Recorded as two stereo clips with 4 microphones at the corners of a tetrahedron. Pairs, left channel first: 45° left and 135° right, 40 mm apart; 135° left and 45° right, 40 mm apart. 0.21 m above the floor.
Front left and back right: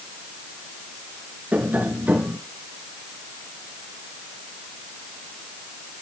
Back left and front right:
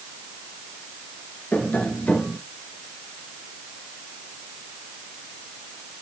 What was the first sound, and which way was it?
Tapping, 175° right.